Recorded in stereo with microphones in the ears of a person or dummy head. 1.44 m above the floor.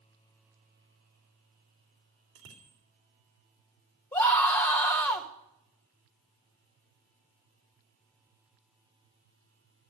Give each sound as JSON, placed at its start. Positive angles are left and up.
{"t": 2.4, "sound": "a bicycle bell", "side_deg": -70, "distance_m": 3.5}
{"t": 4.1, "sound": "a scream", "side_deg": 15, "distance_m": 1.8}